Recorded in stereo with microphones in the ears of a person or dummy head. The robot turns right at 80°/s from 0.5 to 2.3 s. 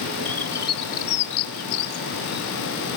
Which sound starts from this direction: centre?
A bird, at 0.2 s.